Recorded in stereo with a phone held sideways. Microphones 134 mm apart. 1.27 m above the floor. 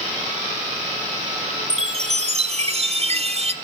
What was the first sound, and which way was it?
A chime, 50° right (ahead or behind).